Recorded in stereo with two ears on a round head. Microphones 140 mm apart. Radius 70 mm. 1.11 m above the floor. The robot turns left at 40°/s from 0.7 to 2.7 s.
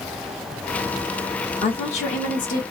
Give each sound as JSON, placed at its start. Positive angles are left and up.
{"t": 1.6, "sound": "a woman speaking", "azimuth_deg": 135, "distance_m": 1.1}